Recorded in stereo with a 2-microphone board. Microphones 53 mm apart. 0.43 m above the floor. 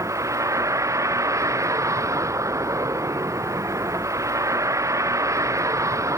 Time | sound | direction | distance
0.0 | a vehicle | 70° right (ahead or behind) | ?